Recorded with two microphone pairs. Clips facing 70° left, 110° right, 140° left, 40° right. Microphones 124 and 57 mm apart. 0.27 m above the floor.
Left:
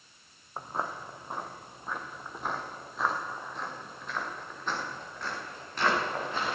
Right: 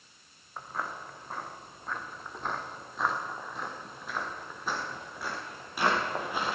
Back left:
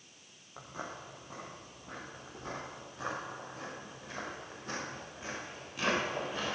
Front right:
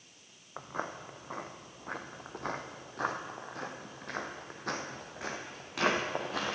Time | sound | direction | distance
0.6 | footsteps | 10° left | 1.4 m